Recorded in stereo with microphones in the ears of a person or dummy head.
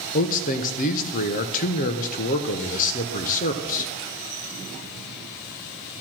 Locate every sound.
0.1 s a man speaking: 45° left (ahead or behind), 1.1 m